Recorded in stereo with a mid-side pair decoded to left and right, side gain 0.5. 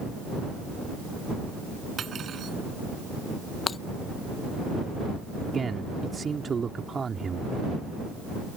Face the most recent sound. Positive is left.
turn(degrees=-35)